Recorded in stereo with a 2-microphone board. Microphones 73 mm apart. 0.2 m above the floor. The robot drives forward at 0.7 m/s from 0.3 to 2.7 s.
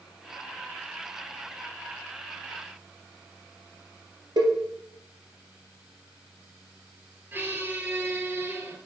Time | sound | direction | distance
4.4 | a cowbell | 75° right (ahead or behind) | 1.8 m
7.3 | a squeak | 30° right (ahead or behind) | 1.3 m